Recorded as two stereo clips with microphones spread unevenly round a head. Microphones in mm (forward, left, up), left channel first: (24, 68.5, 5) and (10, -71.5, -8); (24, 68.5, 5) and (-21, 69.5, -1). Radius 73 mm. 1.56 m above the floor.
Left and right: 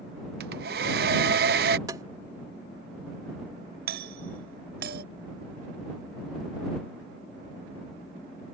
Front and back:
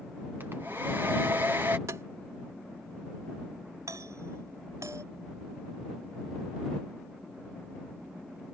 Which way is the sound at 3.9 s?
125° right.